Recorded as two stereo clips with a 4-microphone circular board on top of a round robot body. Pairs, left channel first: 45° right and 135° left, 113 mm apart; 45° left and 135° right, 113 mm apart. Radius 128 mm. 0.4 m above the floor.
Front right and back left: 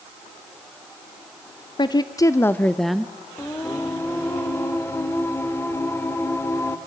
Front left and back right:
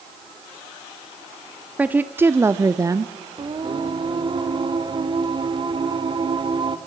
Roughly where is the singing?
Right.